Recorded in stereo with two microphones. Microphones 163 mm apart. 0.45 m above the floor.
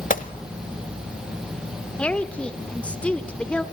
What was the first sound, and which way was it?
A gunshot, 55° left (ahead or behind).